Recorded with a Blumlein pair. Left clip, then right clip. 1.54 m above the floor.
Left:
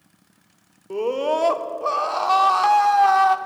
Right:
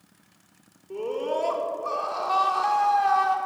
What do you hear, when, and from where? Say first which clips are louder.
0.9 s a scream: left 6 dB; 60° left, 1.1 m